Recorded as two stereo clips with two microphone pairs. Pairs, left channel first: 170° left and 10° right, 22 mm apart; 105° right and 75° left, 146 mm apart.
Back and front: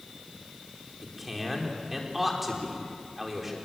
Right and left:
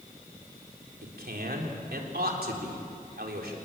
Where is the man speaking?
75° left, 4 m.